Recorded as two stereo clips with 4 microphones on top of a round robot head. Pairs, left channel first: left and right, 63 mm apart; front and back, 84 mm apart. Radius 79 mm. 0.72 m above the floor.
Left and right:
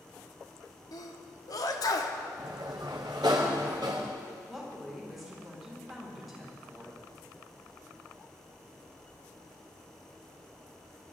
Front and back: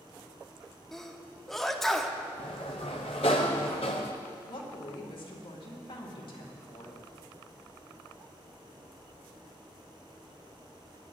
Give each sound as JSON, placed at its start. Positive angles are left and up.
{"t": 0.9, "sound": "a sneeze", "azimuth_deg": 85, "distance_m": 1.3}
{"t": 2.4, "sound": "a sliding door", "azimuth_deg": -35, "distance_m": 0.5}
{"t": 4.5, "sound": "a woman speaking", "azimuth_deg": -5, "distance_m": 2.5}